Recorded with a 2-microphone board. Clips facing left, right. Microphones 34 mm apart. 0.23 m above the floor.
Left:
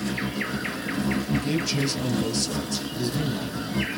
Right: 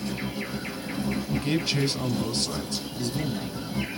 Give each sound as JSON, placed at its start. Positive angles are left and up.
{"t": 0.0, "sound": "an insect", "side_deg": 75, "distance_m": 1.1}
{"t": 1.3, "sound": "a man speaking", "side_deg": -30, "distance_m": 1.2}
{"t": 3.0, "sound": "a man speaking", "side_deg": 25, "distance_m": 1.9}